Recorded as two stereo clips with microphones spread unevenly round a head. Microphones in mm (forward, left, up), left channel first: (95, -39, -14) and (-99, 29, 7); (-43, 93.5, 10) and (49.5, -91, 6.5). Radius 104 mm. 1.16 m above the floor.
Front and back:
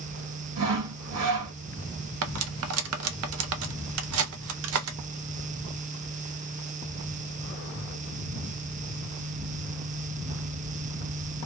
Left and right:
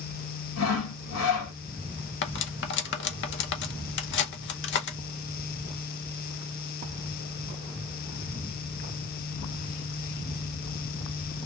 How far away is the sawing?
About 1.7 m.